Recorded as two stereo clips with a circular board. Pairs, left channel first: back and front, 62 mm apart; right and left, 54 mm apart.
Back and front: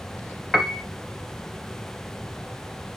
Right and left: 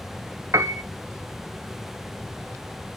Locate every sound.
0.5 s a piano: 90° left, 0.6 m